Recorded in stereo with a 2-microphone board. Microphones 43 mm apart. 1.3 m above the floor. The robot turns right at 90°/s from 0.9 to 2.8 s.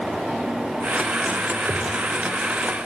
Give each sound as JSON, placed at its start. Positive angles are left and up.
{"t": 1.7, "sound": "a whoosh", "side_deg": -45, "distance_m": 0.9}